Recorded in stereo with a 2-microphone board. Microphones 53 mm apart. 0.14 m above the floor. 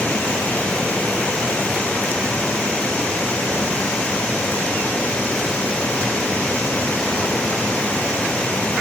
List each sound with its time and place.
Only background noise.